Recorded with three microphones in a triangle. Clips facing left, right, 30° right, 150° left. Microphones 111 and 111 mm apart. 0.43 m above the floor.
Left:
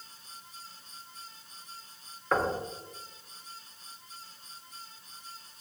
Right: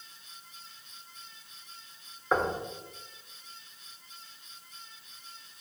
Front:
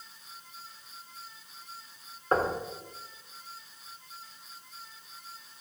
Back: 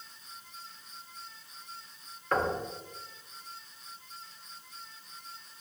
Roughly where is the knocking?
Ahead.